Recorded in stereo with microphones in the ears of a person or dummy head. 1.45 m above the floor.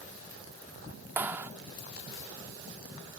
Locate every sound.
1.2 s a clap: 10° right (ahead or behind)